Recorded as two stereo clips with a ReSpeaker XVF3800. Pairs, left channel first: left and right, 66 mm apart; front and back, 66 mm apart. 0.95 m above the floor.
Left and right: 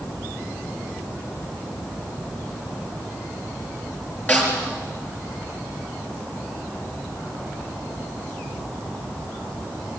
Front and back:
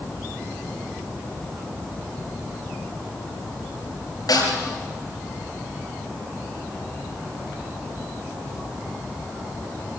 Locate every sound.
4.3 s a snare drum: 25° left, 6 m